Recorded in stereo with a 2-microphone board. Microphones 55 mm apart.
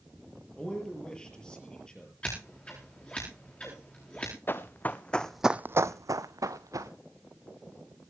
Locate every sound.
0.6 s a man speaking: 15° left (ahead or behind), 6 m
2.2 s scissors: 20° left (ahead or behind), 9 m
4.5 s running footsteps: 40° left (ahead or behind), 1.6 m; by 6.9 s 75° right (ahead or behind), 1.9 m